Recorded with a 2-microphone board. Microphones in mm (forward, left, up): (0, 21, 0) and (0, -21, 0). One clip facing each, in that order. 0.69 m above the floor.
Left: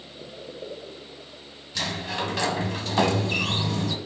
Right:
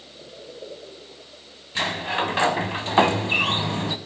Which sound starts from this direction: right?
A sliding door, at 1.8 s.